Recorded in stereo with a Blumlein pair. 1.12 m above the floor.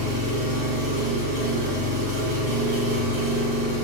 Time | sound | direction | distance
0.0 | an engine running | 55° right | 1.7 m